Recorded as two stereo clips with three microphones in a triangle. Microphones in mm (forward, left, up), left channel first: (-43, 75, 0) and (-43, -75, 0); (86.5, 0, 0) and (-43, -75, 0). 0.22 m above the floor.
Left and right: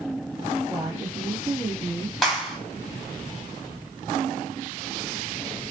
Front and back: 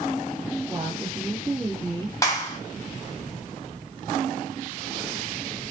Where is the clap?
Straight ahead, 1.1 m.